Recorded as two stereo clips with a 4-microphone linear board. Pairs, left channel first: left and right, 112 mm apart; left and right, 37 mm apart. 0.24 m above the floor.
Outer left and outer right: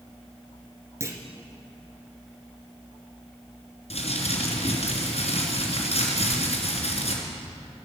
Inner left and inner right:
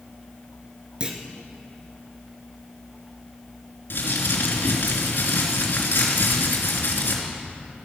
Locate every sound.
1.0 s a clunk: 25° right (ahead or behind), 1.5 m
3.9 s crumpling: 65° left (ahead or behind), 3 m